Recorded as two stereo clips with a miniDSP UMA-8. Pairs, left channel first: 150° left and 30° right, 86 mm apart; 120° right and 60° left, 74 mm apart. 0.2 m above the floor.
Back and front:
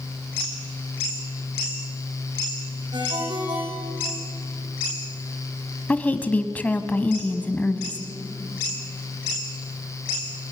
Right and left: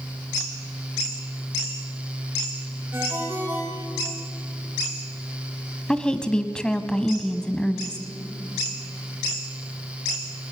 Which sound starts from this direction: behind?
A woman speaking, at 5.9 s.